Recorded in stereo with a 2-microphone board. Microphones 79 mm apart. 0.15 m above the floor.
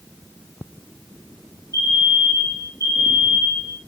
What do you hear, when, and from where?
1.7 s a fire alarm: 40° right (ahead or behind), 4.5 m